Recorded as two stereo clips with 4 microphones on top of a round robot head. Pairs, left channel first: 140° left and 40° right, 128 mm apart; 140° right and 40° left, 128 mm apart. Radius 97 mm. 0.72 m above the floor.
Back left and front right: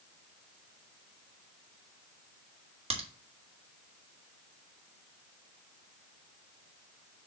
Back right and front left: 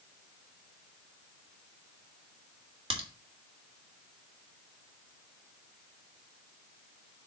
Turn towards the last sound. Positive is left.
turn(degrees=-5)